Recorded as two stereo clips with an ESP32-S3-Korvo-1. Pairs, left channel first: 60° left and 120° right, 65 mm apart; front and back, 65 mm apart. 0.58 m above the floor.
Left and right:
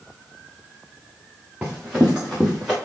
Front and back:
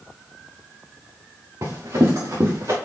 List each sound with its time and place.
1.6 s running footsteps: 165° left, 3 m; by 2.8 s 150° left, 3.5 m